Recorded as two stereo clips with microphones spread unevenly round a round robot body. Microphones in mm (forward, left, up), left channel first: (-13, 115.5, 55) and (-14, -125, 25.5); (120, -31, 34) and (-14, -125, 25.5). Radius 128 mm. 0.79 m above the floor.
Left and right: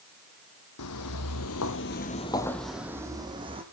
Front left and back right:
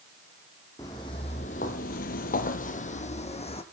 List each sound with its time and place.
0.8 s footsteps: 110° left, 1.9 m; by 3.6 s 20° right, 2.5 m